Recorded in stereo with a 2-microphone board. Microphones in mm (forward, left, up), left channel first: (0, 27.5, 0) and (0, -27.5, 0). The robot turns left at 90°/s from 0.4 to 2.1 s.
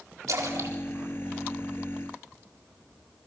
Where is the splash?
85° right, 3.5 m; by 2.0 s 55° left (ahead or behind), 3.5 m.